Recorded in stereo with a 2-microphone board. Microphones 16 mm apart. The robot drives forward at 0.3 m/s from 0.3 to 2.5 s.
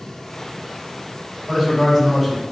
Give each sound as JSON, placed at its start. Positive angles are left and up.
{"t": 1.5, "sound": "a man speaking", "side_deg": -10, "distance_m": 1.6}